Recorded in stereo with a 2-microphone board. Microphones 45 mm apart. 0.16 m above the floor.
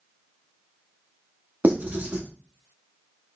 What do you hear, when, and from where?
1.6 s writing: 40° right (ahead or behind), 0.9 m